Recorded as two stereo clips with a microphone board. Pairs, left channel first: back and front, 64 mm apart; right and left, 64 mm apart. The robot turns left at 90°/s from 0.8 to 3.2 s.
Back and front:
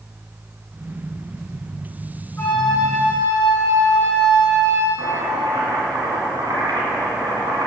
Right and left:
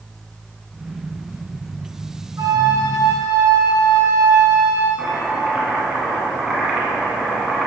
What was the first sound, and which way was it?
A flute, 125° left.